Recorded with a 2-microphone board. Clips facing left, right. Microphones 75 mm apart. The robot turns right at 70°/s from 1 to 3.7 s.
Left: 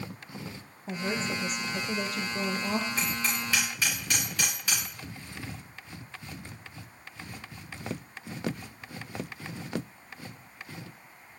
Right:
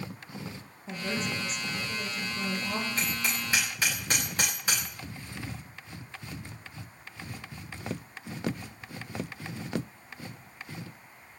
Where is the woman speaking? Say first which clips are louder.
Left 2 dB; 20° left, 3 m; by 2.9 s 150° left, 3 m.